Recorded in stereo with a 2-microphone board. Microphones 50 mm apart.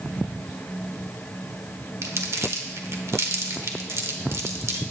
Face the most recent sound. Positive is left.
turn(degrees=-70)  # may be behind; listen again after turning